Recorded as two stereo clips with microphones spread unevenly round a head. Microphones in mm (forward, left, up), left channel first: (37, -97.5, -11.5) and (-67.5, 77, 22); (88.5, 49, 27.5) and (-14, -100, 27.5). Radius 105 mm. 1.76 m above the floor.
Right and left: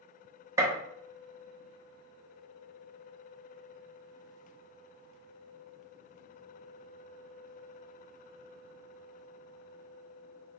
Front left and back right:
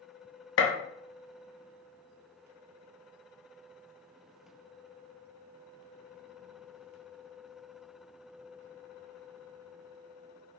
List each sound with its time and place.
0.6 s a gunshot: 45° left, 0.6 m